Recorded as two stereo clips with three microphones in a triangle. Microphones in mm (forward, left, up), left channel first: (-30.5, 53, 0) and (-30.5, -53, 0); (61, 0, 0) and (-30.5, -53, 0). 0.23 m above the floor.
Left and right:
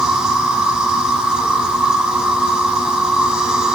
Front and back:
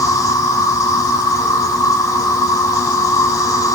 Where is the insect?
10° right, 2.5 m.